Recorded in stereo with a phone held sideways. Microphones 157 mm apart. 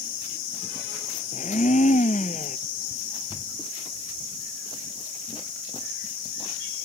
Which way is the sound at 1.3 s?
55° left (ahead or behind).